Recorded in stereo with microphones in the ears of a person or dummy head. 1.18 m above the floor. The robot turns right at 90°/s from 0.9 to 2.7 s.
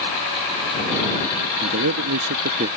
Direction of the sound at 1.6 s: 130° right.